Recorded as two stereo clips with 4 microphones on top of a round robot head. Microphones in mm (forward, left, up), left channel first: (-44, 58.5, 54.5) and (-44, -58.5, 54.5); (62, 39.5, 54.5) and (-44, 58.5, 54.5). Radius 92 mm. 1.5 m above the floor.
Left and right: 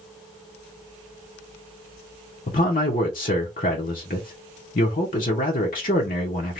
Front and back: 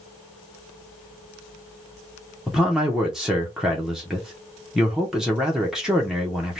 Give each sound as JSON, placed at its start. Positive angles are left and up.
{"t": 2.5, "sound": "a man speaking", "azimuth_deg": 85, "distance_m": 0.7}